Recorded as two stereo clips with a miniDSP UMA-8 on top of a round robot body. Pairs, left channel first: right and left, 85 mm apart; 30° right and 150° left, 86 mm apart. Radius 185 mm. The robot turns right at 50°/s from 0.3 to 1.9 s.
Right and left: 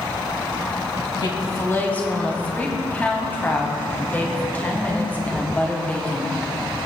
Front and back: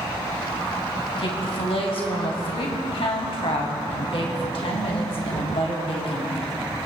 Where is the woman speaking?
55° right, 3 m; by 6.6 s 20° right, 3 m.